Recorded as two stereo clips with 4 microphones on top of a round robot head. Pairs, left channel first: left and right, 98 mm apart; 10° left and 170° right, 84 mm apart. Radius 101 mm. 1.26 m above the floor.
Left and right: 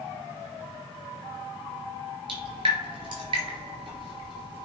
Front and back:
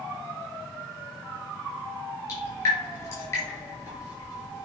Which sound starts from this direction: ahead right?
Dripping, at 2.3 s.